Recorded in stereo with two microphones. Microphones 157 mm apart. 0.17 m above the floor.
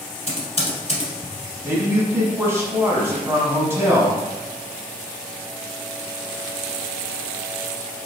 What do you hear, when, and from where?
0.3 s typing on a keyboard: 45° left (ahead or behind), 1.2 m
1.6 s a man speaking: 15° right (ahead or behind), 1.1 m